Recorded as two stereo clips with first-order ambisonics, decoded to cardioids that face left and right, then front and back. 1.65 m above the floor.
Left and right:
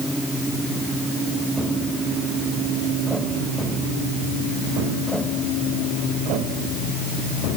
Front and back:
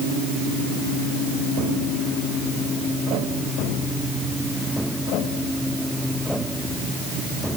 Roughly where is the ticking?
I don't hear ticking.